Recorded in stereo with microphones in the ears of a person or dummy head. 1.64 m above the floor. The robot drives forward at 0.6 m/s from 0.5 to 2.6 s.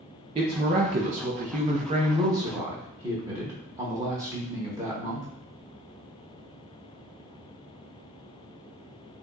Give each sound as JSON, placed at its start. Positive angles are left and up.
{"t": 0.3, "sound": "a woman speaking", "side_deg": -30, "distance_m": 0.7}